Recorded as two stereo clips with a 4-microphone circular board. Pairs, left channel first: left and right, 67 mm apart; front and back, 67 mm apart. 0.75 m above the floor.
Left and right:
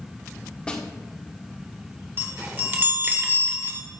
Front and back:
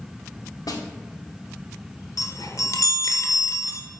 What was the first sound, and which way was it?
A snare drum, 15° left.